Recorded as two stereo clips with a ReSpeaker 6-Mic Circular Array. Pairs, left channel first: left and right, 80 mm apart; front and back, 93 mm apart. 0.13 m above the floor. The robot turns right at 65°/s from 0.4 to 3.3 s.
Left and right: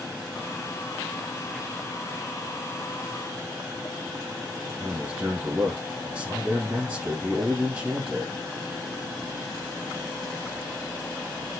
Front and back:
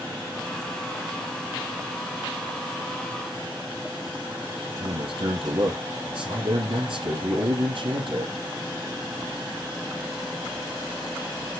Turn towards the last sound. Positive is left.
turn(degrees=-160)